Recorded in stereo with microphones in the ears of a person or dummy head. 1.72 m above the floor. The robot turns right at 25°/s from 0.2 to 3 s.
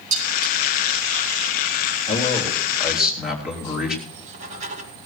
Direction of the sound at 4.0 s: 40° right (ahead or behind).